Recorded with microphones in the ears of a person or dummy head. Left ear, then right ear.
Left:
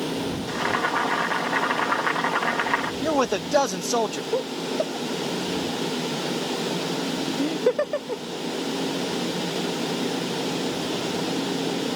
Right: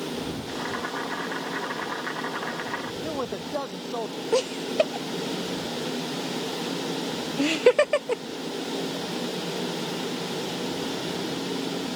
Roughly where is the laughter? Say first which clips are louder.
Right 6 dB; right.